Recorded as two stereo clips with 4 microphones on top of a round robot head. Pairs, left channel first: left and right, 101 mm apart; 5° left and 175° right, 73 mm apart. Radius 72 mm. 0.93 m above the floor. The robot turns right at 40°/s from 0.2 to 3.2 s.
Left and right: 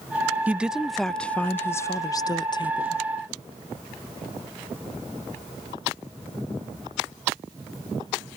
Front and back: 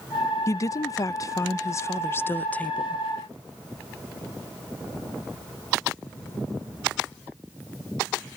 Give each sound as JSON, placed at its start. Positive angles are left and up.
{"t": 0.5, "sound": "a woman speaking", "azimuth_deg": -20}